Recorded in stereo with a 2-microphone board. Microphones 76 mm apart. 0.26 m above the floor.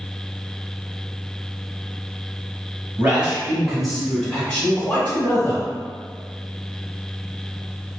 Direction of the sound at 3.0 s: 25° right (ahead or behind).